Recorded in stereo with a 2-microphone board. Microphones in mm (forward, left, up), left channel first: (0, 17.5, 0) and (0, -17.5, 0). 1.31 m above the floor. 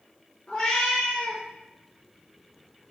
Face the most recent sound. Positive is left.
turn(degrees=20)  # may be behind; listen again after turning